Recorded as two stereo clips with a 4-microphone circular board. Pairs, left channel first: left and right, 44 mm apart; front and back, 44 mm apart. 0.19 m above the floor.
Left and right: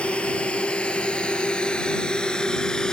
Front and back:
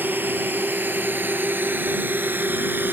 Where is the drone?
150° left; by 2.9 s 160° left.